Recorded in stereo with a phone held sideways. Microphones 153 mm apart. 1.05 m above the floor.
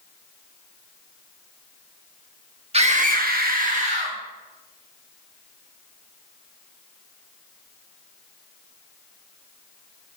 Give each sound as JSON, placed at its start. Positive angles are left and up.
{"t": 2.7, "sound": "a scream", "side_deg": -40, "distance_m": 1.2}